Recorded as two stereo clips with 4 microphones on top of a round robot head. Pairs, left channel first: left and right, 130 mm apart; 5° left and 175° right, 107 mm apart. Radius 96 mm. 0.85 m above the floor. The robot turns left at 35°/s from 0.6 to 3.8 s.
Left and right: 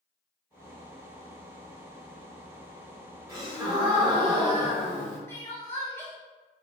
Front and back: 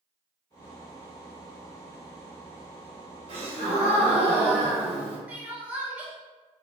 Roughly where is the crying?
Behind left.